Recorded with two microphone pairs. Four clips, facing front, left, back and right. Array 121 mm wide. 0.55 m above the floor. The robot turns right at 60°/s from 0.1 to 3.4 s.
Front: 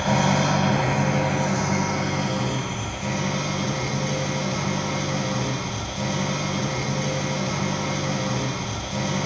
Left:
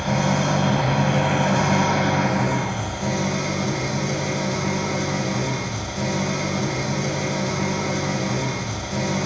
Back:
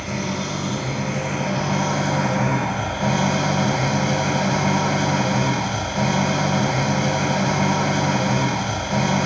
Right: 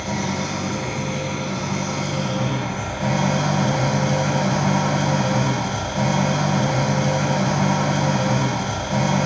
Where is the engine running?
15° left, 1.8 m; by 9.3 s 150° right, 1.8 m.